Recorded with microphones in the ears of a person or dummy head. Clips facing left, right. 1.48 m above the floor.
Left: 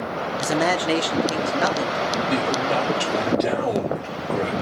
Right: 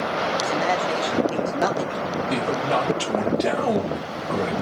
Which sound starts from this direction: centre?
A man speaking, at 2.3 s.